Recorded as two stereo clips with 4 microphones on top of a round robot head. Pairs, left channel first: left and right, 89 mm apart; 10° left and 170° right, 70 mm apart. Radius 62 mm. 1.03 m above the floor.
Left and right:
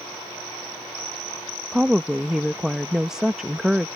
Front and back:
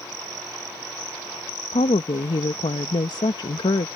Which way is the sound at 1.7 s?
5° right.